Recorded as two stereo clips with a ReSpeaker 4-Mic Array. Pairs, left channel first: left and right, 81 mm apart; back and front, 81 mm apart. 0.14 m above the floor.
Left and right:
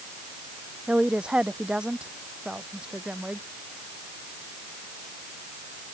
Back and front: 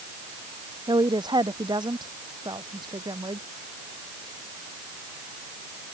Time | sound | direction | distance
0.9 | a woman speaking | 10° right | ?